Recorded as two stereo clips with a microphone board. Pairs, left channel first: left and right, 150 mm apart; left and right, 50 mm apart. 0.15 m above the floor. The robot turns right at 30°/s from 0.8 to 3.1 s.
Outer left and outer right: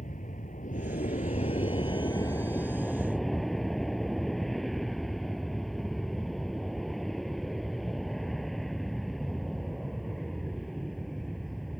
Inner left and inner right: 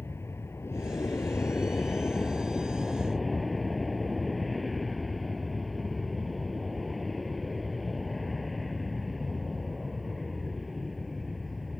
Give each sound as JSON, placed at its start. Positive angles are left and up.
{"t": 0.0, "sound": "an aircraft", "azimuth_deg": 110}